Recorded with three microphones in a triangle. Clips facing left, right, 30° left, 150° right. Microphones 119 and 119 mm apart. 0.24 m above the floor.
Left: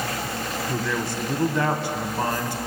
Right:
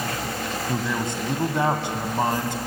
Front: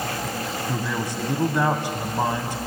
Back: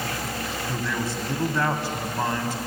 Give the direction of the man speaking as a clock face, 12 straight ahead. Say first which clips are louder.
Right 1 dB, even; 1 o'clock.